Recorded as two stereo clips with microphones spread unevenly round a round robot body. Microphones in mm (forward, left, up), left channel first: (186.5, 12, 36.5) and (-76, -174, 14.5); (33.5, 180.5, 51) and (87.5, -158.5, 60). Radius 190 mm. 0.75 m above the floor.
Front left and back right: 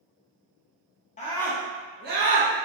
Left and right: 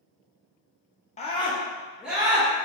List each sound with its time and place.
1.2 s a scream: 75° left, 0.5 m; by 2.5 s 160° right, 0.7 m